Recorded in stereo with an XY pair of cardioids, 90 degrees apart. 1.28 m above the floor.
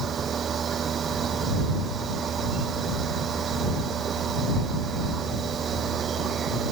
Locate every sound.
0.0 s a machine running: 55° right